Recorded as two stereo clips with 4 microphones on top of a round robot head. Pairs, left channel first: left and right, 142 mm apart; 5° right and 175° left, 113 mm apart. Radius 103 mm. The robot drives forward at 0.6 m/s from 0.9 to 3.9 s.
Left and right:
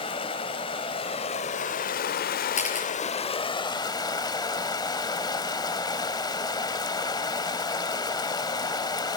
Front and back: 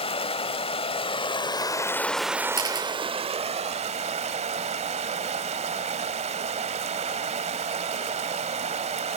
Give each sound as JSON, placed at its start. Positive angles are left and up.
{"t": 0.0, "sound": "running water", "azimuth_deg": 30, "distance_m": 1.0}
{"t": 2.5, "sound": "a camera shutter", "azimuth_deg": 125, "distance_m": 6.0}